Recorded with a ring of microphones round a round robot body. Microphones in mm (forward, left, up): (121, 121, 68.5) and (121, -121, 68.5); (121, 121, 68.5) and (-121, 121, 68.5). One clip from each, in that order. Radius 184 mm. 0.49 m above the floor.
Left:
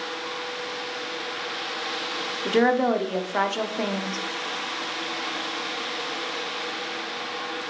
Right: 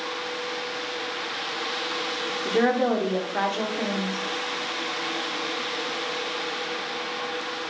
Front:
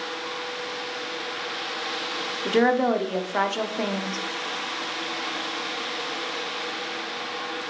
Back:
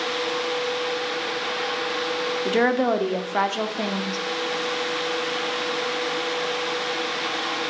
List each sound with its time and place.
2.5 s a woman speaking: 95° left, 1.0 m